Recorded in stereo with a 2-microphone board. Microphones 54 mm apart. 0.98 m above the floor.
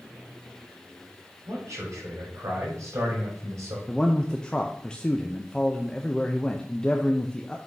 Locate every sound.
1.5 s a man speaking: 70° right (ahead or behind), 4.5 m
3.9 s a man speaking: 15° left (ahead or behind), 0.5 m